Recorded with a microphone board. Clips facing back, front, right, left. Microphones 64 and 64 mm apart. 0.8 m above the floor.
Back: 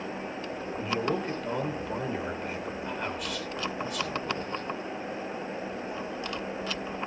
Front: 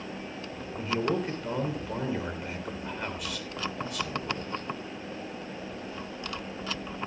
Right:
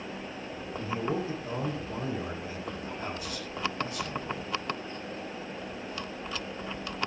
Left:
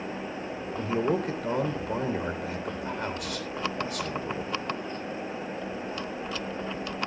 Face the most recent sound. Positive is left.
turn(degrees=90)